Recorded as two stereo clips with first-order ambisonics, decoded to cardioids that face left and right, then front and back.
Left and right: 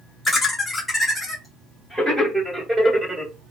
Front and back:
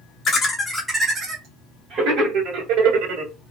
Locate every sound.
0.2 s laughter: 30° left, 0.7 m; by 3.3 s 170° right, 1.6 m